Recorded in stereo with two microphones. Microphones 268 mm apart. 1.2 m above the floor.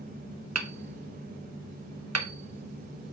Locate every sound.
0.6 s hammering: 70° right (ahead or behind), 0.8 m